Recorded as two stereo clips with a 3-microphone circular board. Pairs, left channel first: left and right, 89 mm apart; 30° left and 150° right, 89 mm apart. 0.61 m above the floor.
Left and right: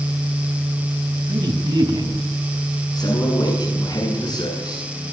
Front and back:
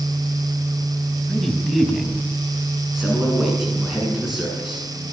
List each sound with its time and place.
1.3 s a man speaking: 55° right, 4.5 m
2.9 s a man speaking: 125° left, 8 m